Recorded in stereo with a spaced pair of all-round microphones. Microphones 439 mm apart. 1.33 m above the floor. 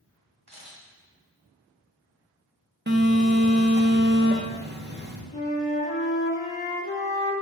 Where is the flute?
65° left (ahead or behind), 1.1 m.